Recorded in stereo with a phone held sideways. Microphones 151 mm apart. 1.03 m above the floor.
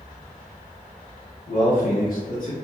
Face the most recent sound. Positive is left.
turn(degrees=55)  # may be behind; listen again after turning